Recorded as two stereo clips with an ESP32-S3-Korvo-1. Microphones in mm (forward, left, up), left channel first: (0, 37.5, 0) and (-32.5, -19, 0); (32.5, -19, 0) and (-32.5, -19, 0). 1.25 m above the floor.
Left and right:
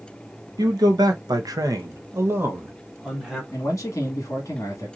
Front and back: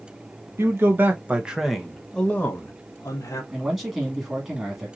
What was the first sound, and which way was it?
A man speaking, 130° right.